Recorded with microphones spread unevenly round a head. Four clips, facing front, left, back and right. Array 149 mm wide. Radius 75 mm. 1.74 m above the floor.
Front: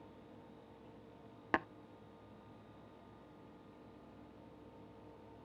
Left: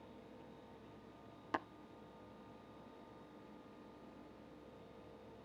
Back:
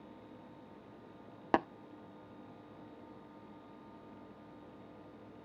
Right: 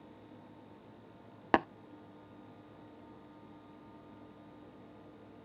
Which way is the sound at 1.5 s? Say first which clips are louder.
Right 13 dB, back 6 dB; 120° right.